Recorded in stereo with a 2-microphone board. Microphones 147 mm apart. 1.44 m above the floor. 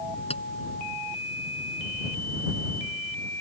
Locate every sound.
0.3 s a clink: 40° left (ahead or behind)